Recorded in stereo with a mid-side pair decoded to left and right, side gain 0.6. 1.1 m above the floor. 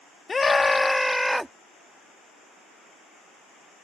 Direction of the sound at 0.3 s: 30° left.